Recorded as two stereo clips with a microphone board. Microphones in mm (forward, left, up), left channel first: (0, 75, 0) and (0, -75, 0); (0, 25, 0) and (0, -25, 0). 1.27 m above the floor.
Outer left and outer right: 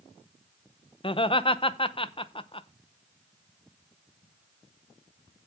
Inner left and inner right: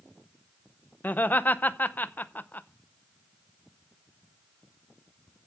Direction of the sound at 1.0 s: 35° left (ahead or behind).